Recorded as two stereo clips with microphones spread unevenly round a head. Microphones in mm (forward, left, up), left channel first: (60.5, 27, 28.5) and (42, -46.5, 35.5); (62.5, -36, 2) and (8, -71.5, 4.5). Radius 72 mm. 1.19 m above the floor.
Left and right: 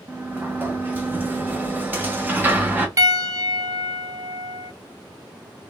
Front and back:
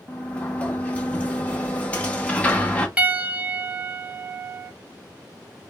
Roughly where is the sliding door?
Ahead right.